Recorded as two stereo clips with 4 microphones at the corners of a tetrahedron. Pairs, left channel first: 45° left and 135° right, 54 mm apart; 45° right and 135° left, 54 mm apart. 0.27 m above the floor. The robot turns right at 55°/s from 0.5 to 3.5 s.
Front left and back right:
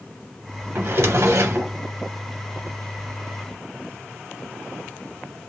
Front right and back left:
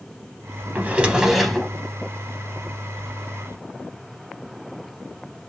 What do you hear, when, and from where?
0.8 s a drawer: 175° right, 0.5 m; by 1.7 s 120° right, 0.5 m